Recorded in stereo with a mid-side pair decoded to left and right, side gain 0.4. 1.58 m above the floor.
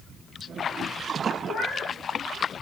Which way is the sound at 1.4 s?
60° left.